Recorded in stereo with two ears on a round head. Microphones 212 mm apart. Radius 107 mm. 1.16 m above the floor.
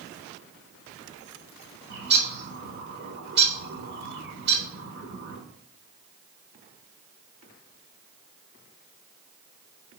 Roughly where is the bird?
Right.